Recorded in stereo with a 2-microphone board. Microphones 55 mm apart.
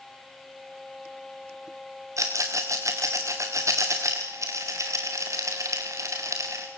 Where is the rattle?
70° right (ahead or behind), 4.5 m.